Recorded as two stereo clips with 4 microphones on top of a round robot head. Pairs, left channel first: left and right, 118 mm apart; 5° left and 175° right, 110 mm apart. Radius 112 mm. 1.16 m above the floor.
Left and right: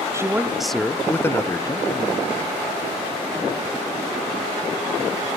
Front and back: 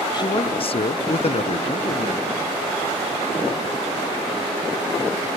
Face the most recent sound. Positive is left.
turn(degrees=35)